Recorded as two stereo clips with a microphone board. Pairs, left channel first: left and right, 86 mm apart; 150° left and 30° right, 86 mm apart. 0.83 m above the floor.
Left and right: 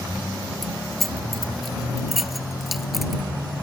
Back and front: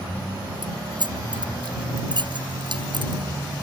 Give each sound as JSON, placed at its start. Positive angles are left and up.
{"t": 0.6, "sound": "keys jangling", "azimuth_deg": 0}